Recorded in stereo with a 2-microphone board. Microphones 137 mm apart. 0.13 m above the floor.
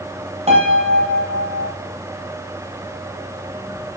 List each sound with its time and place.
0.5 s a piano: 50° right (ahead or behind), 4 m